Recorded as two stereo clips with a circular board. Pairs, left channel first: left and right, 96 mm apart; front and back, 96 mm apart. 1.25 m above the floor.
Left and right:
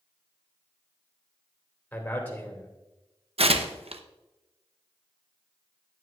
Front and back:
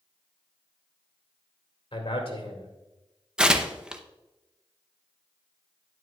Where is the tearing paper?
95° right, 0.6 m.